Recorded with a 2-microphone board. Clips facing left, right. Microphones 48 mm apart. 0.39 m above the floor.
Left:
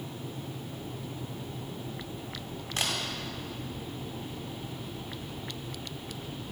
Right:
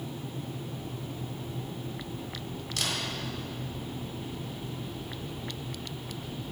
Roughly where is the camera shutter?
Left.